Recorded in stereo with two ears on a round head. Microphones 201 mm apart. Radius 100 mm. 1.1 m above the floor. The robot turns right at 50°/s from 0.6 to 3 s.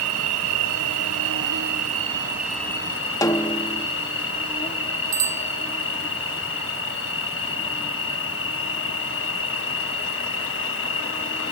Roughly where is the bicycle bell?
Right.